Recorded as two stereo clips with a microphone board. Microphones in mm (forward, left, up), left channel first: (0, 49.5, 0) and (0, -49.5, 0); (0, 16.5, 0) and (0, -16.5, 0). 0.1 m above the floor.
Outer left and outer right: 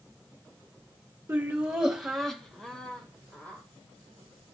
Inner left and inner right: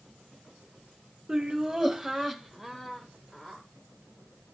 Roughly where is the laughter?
Centre.